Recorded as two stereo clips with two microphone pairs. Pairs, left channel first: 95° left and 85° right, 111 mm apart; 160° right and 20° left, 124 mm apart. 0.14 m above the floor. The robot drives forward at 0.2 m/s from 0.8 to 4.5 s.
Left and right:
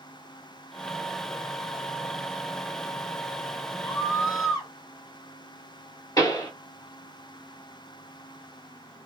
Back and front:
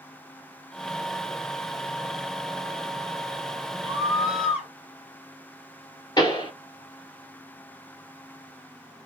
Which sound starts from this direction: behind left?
A pop, at 6.2 s.